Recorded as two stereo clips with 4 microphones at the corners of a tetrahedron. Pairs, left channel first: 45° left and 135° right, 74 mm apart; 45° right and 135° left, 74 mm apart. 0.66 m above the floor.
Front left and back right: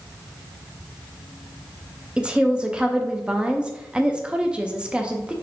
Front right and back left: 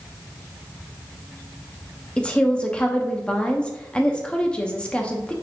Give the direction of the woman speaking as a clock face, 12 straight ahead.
3 o'clock.